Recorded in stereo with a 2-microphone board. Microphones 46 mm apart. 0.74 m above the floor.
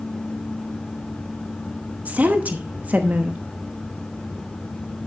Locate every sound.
2.0 s a woman speaking: 35° right (ahead or behind), 1.0 m